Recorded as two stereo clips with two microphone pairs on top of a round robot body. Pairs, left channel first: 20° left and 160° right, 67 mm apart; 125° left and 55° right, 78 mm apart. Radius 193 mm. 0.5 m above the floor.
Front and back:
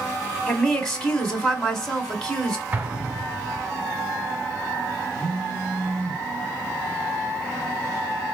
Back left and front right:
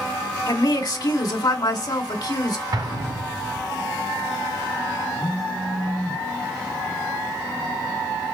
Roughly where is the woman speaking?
Left.